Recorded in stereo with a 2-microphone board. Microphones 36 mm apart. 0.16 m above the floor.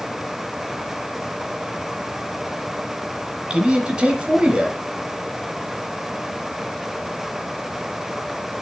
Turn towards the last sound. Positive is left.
turn(degrees=-25)  # may be behind; listen again after turning